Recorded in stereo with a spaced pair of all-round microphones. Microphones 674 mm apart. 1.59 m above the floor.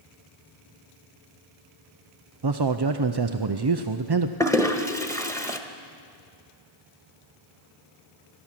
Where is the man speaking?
35° right (ahead or behind), 0.6 m.